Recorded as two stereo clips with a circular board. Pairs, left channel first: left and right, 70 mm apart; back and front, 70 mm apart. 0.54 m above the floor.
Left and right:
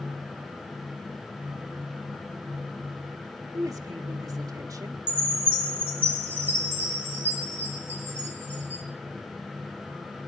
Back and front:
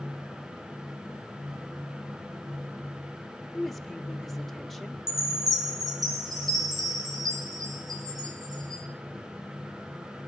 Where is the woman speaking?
95° right, 1.6 m.